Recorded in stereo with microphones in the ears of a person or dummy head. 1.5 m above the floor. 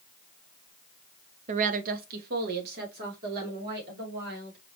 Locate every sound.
1.5 s a woman speaking: 35° right (ahead or behind), 0.6 m; by 4.6 s 55° right (ahead or behind), 3.5 m